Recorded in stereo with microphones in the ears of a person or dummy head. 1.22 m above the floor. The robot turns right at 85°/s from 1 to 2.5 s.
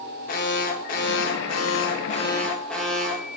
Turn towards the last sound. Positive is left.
turn(degrees=180)